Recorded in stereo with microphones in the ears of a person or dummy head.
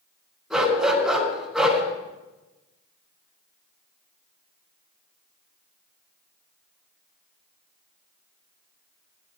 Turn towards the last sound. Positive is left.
turn(degrees=0)  # may be behind; listen again after turning